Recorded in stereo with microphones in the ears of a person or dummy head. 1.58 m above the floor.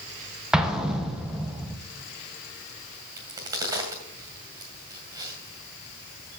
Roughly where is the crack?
Centre.